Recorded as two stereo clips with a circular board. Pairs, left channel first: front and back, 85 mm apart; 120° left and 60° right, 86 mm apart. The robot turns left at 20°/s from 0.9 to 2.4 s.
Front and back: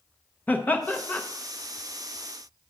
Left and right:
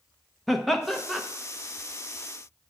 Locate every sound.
0.5 s laughter: 35° left, 0.6 m; by 1.2 s 30° left, 0.6 m